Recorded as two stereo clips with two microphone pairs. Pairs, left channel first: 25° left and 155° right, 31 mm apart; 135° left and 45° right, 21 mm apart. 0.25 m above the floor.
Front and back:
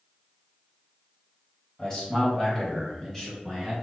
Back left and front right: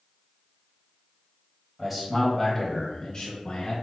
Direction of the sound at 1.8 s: 20° left.